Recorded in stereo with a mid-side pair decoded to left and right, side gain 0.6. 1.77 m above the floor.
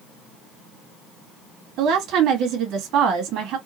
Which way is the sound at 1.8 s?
60° right.